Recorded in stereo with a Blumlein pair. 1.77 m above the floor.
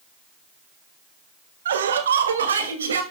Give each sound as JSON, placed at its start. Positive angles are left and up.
{"t": 1.6, "sound": "laughter", "azimuth_deg": -65, "distance_m": 1.8}